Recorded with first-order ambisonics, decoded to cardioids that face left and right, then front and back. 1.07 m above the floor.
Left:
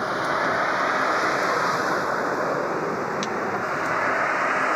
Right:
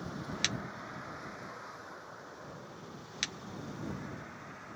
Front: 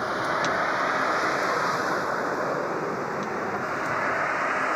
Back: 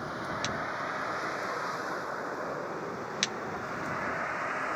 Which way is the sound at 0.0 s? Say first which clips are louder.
Left 14 dB, front 9 dB; 60° left.